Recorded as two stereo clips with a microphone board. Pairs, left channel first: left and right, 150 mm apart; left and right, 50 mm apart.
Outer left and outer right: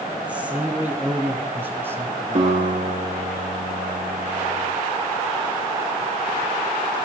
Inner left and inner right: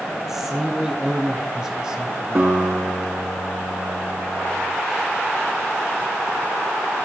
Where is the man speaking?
10° right (ahead or behind), 3 m; by 2.5 s 20° right (ahead or behind), 2 m.